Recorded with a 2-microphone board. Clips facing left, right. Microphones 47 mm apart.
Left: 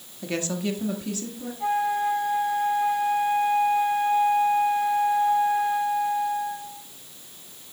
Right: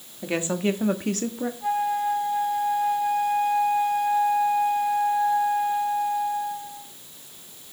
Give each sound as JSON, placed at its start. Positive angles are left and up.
{"t": 0.2, "sound": "a woman speaking", "side_deg": -15, "distance_m": 1.3}
{"t": 1.6, "sound": "a flute", "side_deg": 50, "distance_m": 5.5}